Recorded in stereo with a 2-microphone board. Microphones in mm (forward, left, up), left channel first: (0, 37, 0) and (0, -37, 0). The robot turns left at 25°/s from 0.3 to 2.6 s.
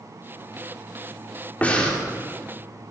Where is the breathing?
20° left (ahead or behind), 2 m; by 2.0 s 10° left (ahead or behind), 2 m.